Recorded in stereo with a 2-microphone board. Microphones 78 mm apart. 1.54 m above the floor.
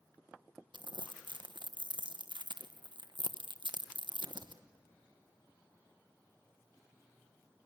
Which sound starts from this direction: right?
Crumpling, at 0.7 s.